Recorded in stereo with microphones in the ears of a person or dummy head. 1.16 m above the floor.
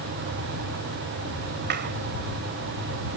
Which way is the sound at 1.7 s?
55° right (ahead or behind).